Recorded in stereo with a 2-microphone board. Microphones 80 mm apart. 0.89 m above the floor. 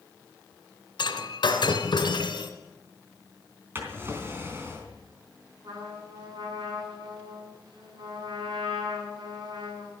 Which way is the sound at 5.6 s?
70° right (ahead or behind).